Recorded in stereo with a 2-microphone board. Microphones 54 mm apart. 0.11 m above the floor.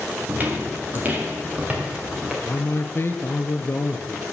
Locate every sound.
0.3 s footsteps: 35° right (ahead or behind), 3 m; by 2.3 s 20° right (ahead or behind), 4.5 m
2.4 s a man speaking: 40° left (ahead or behind), 1.4 m